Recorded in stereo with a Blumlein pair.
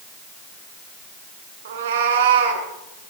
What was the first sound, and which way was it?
A cat meowing, 60° right.